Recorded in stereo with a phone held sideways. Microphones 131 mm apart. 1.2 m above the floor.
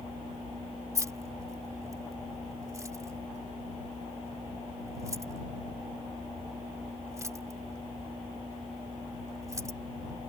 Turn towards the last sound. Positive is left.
turn(degrees=-25)  # may be behind; listen again after turning